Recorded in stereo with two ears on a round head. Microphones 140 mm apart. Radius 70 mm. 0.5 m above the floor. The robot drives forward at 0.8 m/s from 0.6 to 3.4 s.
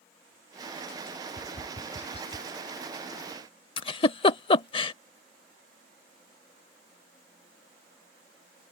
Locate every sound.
1.4 s tapping: 70° left (ahead or behind); by 2.5 s 35° left (ahead or behind)
3.8 s a giggle: 35° left (ahead or behind)